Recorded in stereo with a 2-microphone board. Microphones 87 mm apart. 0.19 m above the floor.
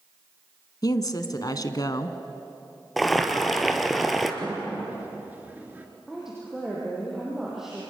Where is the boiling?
Centre (ahead or behind), 1.7 m.